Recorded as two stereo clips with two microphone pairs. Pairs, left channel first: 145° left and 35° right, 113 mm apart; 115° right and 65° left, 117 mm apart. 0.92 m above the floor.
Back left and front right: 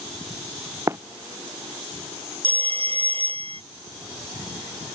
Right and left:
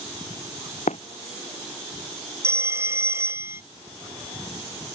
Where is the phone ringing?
5° right.